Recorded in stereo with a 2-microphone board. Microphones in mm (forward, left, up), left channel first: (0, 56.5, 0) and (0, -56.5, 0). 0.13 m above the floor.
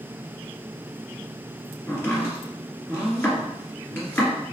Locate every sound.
1.9 s chopping: 20° left (ahead or behind), 2.0 m